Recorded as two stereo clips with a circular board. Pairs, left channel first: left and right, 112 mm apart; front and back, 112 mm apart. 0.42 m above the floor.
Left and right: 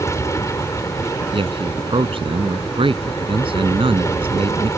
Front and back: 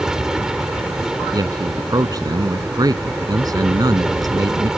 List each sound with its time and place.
0.0 s an aircraft: 100° left
1.3 s a man speaking: 125° right